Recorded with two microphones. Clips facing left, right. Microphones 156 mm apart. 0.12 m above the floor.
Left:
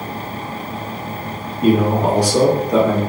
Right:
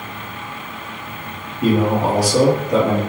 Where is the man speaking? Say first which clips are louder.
Left 2 dB; 5° right (ahead or behind), 1.6 m.